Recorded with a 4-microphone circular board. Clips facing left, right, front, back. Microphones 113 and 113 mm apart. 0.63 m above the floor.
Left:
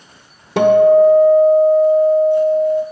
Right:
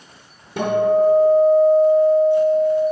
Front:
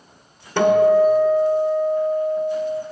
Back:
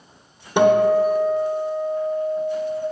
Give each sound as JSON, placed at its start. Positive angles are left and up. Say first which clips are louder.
{"t": 0.6, "sound": "a guitar", "louder": "left 8 dB, front 1 dB", "azimuth_deg": 105, "distance_m": 0.7}